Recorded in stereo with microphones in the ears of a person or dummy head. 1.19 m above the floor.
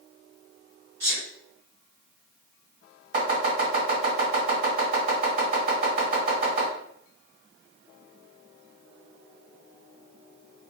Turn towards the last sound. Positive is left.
turn(degrees=-55)  # may be behind; listen again after turning